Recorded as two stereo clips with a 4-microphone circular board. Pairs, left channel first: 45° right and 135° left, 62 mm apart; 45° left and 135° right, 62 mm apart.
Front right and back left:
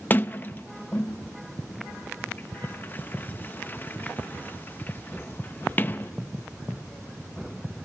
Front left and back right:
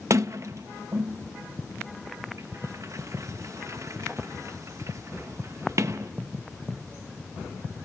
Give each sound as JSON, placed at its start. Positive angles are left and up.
{"t": 0.1, "sound": "a sliding door", "azimuth_deg": -100, "distance_m": 0.6}